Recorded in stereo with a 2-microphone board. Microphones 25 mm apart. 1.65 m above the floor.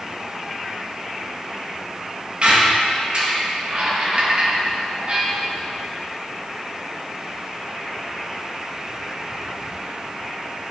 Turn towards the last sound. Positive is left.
turn(degrees=-45)  # may be behind; listen again after turning